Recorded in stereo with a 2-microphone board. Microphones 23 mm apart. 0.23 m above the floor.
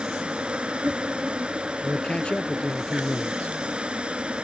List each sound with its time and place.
0.0 s an insect: 65° right (ahead or behind)
1.8 s a man speaking: 60° left (ahead or behind)